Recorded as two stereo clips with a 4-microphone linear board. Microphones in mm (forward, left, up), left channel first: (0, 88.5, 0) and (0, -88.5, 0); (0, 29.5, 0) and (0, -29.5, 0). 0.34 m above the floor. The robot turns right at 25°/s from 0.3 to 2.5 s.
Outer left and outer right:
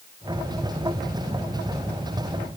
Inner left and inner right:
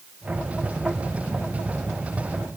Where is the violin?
I don't hear a violin.